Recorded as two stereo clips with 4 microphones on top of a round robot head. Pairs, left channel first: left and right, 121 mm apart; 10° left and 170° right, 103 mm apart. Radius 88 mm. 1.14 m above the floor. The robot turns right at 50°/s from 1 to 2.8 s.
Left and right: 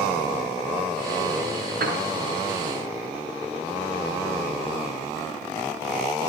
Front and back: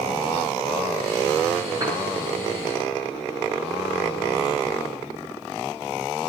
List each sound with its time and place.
1.8 s a piano: 105° right, 6.5 m; by 2.0 s 95° right, 6.5 m